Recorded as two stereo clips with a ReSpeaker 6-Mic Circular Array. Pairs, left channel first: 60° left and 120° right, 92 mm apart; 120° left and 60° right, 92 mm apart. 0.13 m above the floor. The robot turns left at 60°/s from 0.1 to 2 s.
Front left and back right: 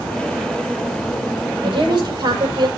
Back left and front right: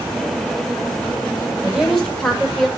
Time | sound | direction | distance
1.6 | a woman speaking | 135° right | 4.5 m